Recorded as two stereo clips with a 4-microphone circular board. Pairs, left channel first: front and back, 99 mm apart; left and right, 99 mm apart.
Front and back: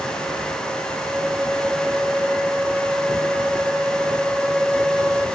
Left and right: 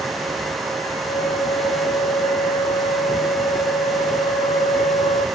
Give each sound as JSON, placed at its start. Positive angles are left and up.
{"t": 1.1, "sound": "a flute", "azimuth_deg": 95}